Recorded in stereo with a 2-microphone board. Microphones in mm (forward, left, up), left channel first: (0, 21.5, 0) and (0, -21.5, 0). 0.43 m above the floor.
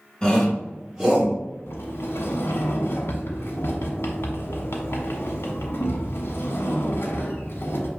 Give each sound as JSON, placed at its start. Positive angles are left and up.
{"t": 0.2, "sound": "a shout", "side_deg": 20, "distance_m": 1.4}
{"t": 1.7, "sound": "a sliding door", "side_deg": 65, "distance_m": 0.8}